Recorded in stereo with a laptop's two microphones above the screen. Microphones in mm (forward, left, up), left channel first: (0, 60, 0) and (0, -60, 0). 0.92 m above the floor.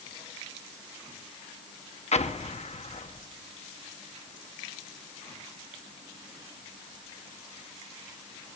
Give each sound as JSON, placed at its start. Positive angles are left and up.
{"t": 2.1, "sound": "an explosion", "side_deg": 65, "distance_m": 0.8}